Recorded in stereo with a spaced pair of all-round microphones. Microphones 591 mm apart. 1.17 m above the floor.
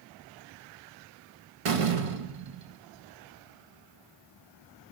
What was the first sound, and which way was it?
A door slam, 60° right (ahead or behind).